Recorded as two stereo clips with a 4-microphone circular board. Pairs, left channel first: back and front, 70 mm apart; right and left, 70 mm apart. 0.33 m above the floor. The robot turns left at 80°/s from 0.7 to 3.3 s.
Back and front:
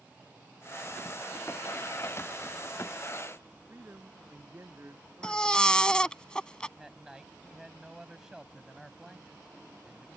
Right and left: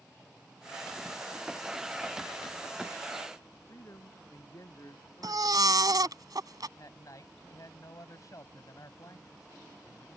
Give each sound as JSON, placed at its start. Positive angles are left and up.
{"t": 3.7, "sound": "a man speaking", "azimuth_deg": -55}
{"t": 5.2, "sound": "a baby crying", "azimuth_deg": 105}
{"t": 6.8, "sound": "a man speaking", "azimuth_deg": -80}